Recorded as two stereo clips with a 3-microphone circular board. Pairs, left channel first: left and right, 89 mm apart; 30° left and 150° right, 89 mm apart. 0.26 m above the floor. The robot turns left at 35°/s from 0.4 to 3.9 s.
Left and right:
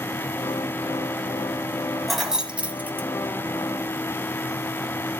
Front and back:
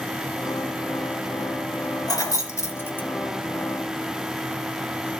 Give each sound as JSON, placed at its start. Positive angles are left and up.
{"t": 2.1, "sound": "keys jangling", "azimuth_deg": 0, "distance_m": 1.2}